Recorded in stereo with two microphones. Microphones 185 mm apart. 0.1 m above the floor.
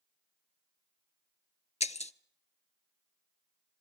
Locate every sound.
1.8 s breaking glass: 40° left (ahead or behind), 0.6 m